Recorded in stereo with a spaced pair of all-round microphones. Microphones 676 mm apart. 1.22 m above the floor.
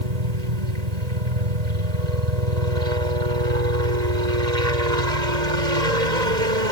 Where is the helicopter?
75° right (ahead or behind).